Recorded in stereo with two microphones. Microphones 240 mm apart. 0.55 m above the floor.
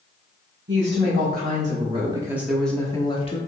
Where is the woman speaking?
50° right (ahead or behind), 1.4 m; by 3.4 s 25° left (ahead or behind), 1.0 m.